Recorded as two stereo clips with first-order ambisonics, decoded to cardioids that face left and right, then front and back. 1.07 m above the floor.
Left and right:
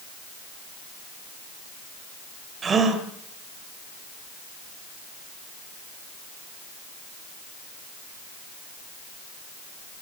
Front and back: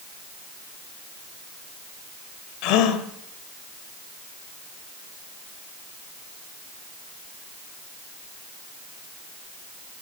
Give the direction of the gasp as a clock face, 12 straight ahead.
1 o'clock.